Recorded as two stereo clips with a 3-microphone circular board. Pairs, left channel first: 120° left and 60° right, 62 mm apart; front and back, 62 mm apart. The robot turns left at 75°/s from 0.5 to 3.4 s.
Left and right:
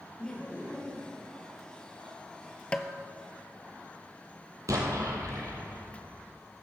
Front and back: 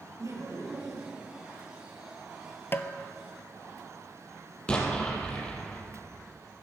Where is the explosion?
70° right, 2.5 m.